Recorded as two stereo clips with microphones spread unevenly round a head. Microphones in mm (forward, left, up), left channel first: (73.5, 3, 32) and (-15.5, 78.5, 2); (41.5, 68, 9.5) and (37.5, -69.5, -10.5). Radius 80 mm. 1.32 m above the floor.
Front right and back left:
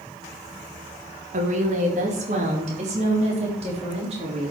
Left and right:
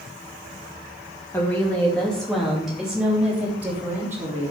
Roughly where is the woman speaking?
Behind.